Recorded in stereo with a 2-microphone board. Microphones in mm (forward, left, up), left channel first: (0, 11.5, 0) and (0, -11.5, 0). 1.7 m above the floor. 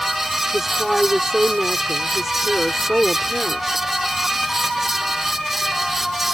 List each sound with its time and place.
0.5 s a woman speaking: 15° right (ahead or behind)